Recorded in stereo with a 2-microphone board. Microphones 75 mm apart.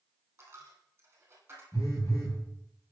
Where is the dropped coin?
30° right (ahead or behind), 2.5 m.